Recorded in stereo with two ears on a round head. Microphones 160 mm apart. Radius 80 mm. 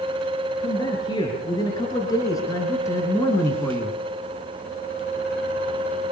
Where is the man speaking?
25° left (ahead or behind), 7.5 m; by 4.0 s 10° left (ahead or behind), 4.5 m.